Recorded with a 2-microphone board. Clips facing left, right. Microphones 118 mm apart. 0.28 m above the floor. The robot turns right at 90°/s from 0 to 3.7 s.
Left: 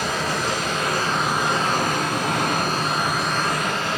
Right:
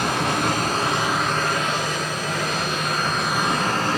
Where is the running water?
110° right, 2.5 m; by 4.0 s 135° right, 2.5 m.